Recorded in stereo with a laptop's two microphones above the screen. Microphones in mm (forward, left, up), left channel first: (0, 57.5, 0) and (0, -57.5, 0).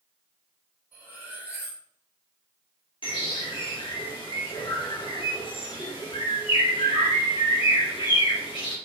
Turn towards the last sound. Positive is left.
turn(degrees=50)  # may be behind; listen again after turning